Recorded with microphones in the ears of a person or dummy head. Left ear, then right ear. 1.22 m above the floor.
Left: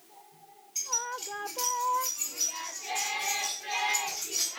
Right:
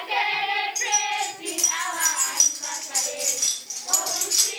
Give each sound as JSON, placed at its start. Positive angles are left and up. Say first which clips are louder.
{"t": 0.8, "sound": "keys jangling", "louder": "right 10 dB", "side_deg": 0, "distance_m": 1.6}